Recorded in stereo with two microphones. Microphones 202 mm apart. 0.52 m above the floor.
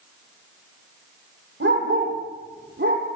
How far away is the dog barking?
About 7.5 m.